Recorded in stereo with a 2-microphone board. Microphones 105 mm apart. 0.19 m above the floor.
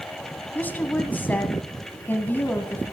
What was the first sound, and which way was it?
A woman speaking, 15° left (ahead or behind).